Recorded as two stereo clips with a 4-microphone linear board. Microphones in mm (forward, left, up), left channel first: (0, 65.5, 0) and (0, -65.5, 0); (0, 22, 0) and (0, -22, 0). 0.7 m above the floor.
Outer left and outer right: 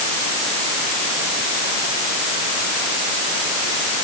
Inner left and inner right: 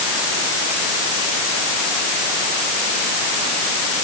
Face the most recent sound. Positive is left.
No sound to turn to.